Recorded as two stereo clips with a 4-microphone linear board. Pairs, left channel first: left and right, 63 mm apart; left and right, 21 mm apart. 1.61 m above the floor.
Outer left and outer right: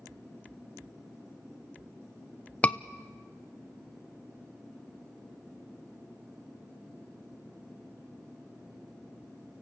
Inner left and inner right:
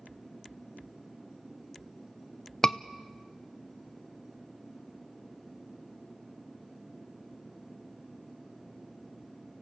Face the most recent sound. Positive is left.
turn(degrees=20)  # may be behind; listen again after turning